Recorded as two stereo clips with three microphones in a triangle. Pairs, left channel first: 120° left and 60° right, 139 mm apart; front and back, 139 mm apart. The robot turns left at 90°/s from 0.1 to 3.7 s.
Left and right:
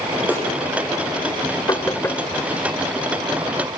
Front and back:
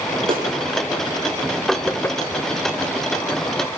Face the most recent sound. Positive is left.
turn(degrees=-90)